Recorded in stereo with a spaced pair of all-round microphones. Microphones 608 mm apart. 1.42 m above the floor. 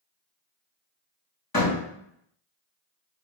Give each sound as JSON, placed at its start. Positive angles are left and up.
{"t": 1.5, "sound": "a door slam", "side_deg": 30, "distance_m": 2.0}